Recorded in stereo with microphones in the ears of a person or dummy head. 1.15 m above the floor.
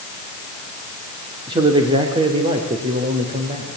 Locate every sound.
1.5 s a man speaking: 25° right (ahead or behind), 2.5 m; by 3.7 s 40° right (ahead or behind), 4 m